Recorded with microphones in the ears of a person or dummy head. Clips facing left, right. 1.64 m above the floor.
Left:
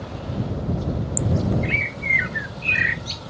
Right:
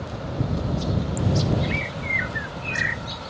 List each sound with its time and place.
1.6 s a bird: 50° left (ahead or behind)